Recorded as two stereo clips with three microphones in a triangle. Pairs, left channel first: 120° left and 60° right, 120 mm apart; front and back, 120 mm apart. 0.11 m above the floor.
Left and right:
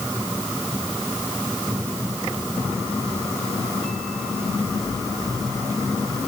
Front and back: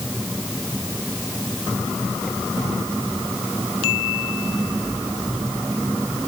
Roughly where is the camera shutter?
No camera shutter in this recording.